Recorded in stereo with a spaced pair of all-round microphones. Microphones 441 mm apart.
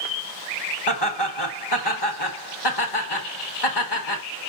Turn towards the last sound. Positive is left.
turn(degrees=65)  # may be behind; listen again after turning